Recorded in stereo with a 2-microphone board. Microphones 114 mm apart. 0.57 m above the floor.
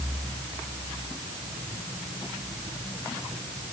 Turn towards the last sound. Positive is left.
No sound to turn to.